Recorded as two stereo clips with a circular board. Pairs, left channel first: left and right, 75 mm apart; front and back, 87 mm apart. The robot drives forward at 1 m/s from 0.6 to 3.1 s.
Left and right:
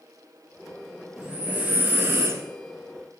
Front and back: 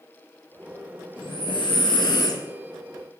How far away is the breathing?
About 2.0 m.